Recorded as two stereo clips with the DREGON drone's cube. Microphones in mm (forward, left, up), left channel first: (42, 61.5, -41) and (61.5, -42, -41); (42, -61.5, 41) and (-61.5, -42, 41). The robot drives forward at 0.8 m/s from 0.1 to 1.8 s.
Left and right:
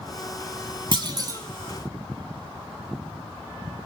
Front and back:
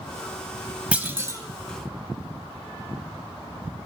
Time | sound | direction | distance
0.9 | a clunk | 110° right | 0.9 m